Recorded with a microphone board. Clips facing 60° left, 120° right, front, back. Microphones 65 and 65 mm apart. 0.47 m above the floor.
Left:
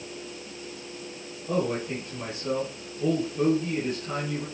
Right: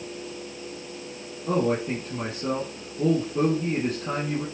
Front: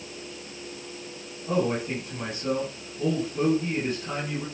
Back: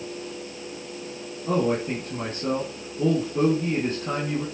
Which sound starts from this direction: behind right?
A man speaking, at 1.5 s.